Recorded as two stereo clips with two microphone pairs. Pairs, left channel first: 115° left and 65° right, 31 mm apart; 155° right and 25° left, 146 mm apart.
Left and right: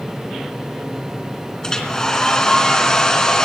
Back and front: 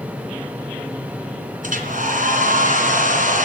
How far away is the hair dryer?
About 3 m.